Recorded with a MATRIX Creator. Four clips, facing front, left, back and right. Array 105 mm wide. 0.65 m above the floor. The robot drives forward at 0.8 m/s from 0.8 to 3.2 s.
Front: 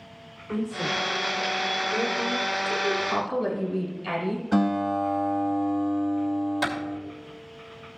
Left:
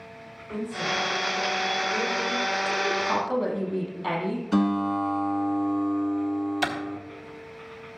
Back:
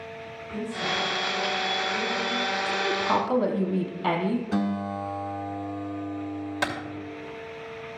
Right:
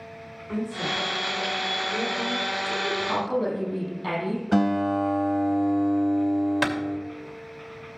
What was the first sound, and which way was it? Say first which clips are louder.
A woman speaking: even, front 2 dB; 25° right.